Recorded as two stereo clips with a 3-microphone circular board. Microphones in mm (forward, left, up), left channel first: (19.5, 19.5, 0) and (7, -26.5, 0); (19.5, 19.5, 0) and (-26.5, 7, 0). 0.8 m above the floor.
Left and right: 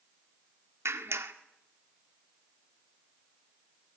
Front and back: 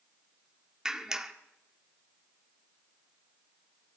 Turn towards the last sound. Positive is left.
turn(degrees=-90)